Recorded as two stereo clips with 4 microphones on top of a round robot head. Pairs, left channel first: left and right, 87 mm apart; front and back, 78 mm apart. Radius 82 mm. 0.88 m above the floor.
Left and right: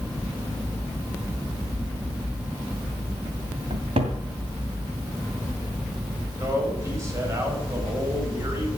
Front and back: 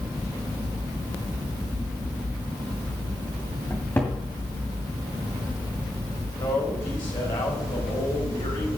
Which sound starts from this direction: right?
A cupboard door, at 3.7 s.